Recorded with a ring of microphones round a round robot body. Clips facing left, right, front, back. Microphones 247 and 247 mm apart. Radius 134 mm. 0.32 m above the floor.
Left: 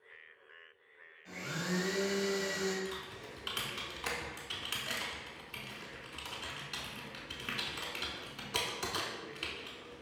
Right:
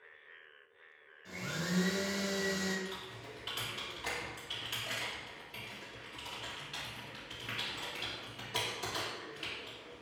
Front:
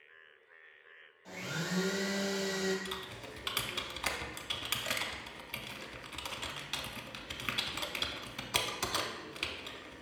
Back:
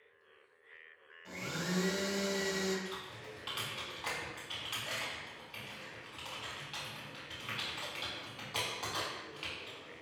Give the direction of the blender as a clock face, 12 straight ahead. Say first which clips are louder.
Left 1 dB, back 1 dB; 3 o'clock.